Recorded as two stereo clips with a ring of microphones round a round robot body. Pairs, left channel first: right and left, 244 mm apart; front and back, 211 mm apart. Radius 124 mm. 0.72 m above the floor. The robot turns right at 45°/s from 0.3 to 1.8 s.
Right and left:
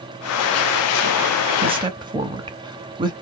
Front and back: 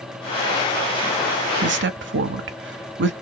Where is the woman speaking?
150° left, 0.8 m; by 3.1 s 160° left, 0.8 m.